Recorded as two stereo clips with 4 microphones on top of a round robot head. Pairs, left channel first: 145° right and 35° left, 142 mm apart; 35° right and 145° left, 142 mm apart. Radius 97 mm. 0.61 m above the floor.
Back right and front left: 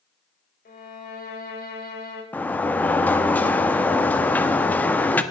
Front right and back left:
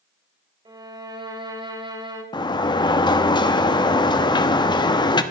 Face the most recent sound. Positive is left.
turn(degrees=-75)